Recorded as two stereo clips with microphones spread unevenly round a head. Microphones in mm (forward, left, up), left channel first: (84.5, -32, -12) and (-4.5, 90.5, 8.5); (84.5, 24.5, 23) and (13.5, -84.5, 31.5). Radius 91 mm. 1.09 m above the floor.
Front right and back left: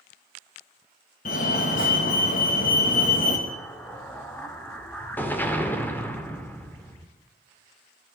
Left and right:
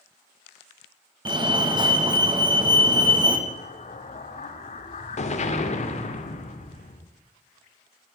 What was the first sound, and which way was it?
A fire alarm, 75° right.